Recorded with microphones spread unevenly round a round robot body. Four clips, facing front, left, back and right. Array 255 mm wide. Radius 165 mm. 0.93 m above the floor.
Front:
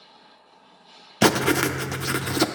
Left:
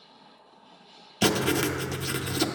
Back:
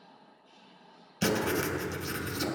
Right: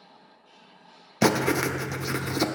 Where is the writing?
30° right, 0.5 m.